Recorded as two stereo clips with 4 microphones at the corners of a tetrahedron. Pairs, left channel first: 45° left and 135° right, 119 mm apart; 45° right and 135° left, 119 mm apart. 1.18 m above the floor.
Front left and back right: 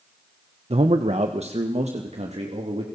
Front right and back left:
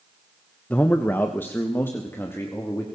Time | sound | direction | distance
0.7 | a man speaking | 120° right | 1.0 m